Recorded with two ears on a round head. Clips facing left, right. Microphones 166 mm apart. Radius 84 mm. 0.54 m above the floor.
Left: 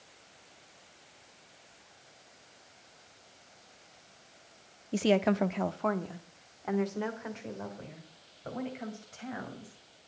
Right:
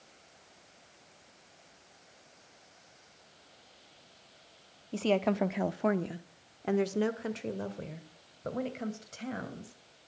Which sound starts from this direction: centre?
A woman speaking, at 4.9 s.